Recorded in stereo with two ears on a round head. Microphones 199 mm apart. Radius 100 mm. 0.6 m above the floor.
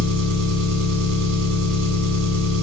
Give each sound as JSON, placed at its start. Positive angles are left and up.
{"t": 0.0, "sound": "an engine running", "side_deg": -65, "distance_m": 1.0}